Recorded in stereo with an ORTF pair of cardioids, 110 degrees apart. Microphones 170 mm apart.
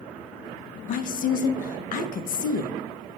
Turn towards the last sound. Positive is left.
turn(degrees=55)